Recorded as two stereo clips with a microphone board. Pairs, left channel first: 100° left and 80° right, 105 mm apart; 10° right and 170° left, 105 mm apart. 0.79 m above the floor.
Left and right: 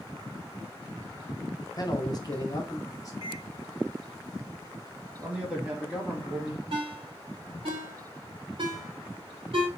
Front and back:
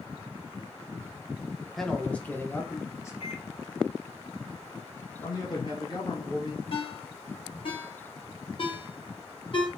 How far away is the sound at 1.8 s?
About 0.6 m.